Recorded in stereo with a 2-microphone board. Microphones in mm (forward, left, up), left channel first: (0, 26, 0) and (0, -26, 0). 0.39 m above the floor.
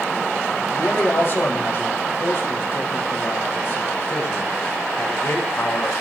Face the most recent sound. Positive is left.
turn(degrees=50)  # may be behind; listen again after turning